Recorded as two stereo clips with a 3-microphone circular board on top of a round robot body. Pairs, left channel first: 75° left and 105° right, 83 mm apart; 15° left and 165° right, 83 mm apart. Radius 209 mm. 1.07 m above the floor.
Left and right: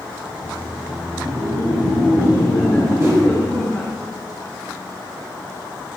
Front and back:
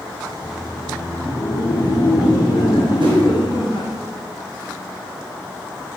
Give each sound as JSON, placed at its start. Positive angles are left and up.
{"t": 0.3, "sound": "laughter", "azimuth_deg": -60, "distance_m": 2.0}
{"t": 3.0, "sound": "a whoosh", "azimuth_deg": -160, "distance_m": 4.0}